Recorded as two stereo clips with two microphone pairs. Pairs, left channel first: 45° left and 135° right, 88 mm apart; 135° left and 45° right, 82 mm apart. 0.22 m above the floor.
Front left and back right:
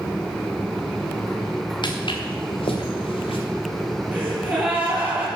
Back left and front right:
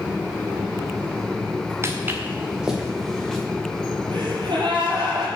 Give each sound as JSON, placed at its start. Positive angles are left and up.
{"t": 1.8, "sound": "footsteps", "azimuth_deg": 10, "distance_m": 1.8}
{"t": 4.1, "sound": "a gasp", "azimuth_deg": -60, "distance_m": 4.5}